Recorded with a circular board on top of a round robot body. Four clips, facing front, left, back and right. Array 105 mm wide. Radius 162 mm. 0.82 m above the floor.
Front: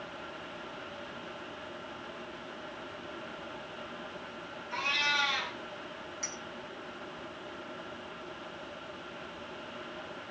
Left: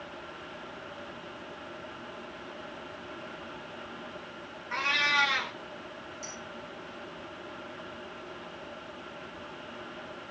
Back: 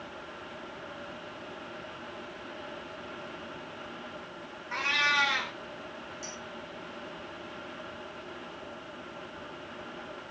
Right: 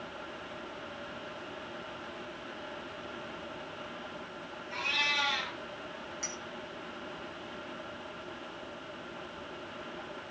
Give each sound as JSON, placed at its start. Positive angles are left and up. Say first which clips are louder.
{"t": 4.7, "sound": "a cat meowing", "louder": "left 6 dB, back 4 dB", "azimuth_deg": 130, "distance_m": 2.5}
{"t": 6.2, "sound": "a clink", "louder": "right 1 dB, back 1 dB", "azimuth_deg": -45, "distance_m": 8.0}